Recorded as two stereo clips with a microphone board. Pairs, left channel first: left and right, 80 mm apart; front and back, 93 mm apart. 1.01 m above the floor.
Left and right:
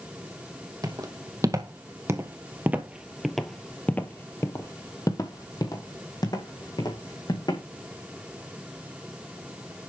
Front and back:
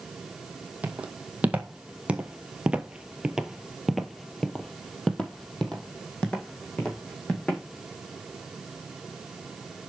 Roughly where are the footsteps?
Right.